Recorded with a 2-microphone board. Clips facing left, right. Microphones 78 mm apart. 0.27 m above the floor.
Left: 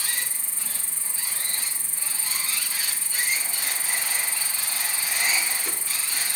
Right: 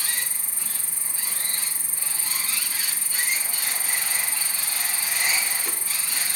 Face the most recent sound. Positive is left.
turn(degrees=-15)  # may be behind; listen again after turning